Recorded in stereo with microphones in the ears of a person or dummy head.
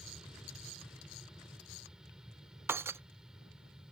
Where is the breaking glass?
10° right (ahead or behind).